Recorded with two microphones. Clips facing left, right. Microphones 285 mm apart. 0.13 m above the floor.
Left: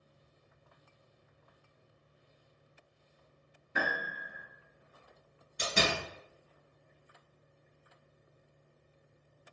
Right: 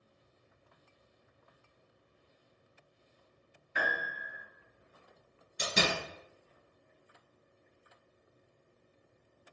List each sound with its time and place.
3.8 s a piano: 45° left (ahead or behind), 0.7 m
5.6 s a door slam: 15° right (ahead or behind), 1.6 m